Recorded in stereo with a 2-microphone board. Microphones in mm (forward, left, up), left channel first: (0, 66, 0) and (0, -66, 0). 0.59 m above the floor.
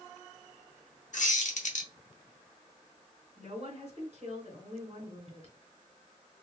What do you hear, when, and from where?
1.1 s a squeak: 70° left (ahead or behind), 0.9 m
3.4 s a woman speaking: 50° right (ahead or behind), 1.9 m